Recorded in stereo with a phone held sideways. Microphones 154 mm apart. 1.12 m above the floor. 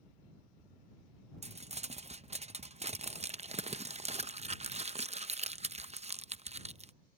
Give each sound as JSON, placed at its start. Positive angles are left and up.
{"t": 1.4, "sound": "crumpling", "side_deg": -45}